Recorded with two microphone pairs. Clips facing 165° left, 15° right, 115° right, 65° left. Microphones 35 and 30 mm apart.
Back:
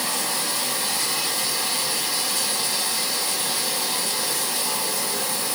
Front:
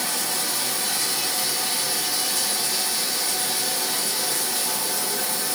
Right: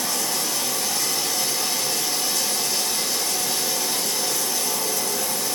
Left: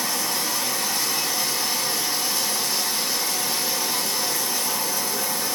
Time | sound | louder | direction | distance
0.0 | running water | back 1 dB, even | 130° left | 1.8 m